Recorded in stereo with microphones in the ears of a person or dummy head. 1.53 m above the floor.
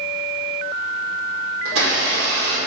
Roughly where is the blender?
Right.